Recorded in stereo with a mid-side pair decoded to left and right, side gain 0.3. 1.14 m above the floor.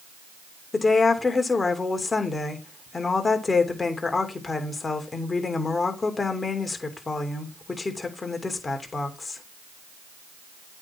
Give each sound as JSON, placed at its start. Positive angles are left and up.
{"t": 0.7, "sound": "a woman speaking", "azimuth_deg": 40, "distance_m": 3.0}